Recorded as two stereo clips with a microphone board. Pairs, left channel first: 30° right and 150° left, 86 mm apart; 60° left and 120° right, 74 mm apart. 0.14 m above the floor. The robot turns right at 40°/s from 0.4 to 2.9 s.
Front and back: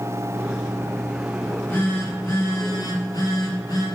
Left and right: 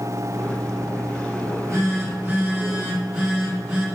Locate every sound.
1.4 s a phone buzzing: 105° right, 2.5 m; by 3.9 s 45° right, 2.5 m